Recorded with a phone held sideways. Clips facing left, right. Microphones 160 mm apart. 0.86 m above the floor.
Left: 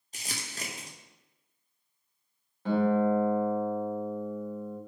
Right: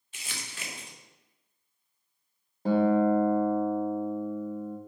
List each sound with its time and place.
0.1 s crumpling: 40° left (ahead or behind), 0.6 m
2.6 s a guitar: 40° right (ahead or behind), 0.7 m